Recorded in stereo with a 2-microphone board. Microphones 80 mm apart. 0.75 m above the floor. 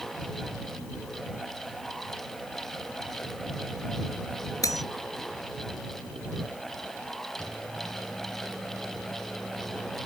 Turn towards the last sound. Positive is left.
turn(degrees=15)  # may be behind; listen again after turning